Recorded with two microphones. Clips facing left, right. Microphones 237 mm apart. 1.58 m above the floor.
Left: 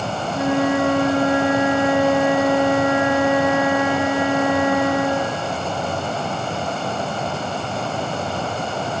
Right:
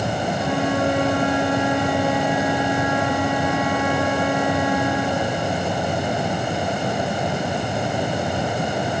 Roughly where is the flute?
Left.